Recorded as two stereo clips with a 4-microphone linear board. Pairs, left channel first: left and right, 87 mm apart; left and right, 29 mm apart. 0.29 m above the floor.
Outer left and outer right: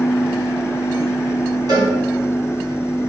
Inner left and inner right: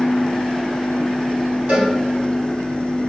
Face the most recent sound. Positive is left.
turn(degrees=-50)  # may be behind; listen again after turning